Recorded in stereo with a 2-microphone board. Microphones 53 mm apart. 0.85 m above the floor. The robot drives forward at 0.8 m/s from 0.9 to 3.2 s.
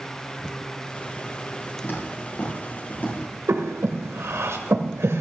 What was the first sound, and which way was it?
Footsteps, 45° left (ahead or behind).